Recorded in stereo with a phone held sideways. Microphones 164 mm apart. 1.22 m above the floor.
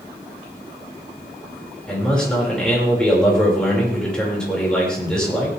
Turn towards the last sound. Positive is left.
turn(degrees=5)  # may be behind; listen again after turning